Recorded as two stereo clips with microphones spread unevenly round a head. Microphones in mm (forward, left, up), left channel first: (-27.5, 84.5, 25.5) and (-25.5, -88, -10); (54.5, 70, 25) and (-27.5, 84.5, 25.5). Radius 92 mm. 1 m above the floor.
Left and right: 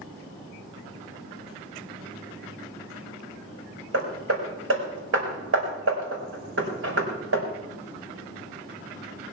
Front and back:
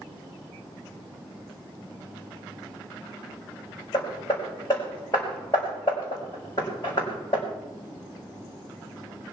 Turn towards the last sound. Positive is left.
turn(degrees=-80)